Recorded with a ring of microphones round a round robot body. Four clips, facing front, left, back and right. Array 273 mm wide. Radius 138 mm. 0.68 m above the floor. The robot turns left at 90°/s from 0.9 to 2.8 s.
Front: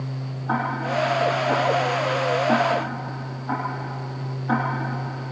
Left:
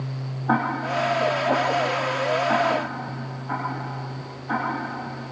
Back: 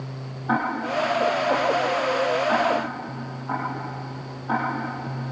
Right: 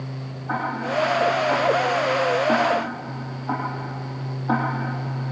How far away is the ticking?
About 6.5 m.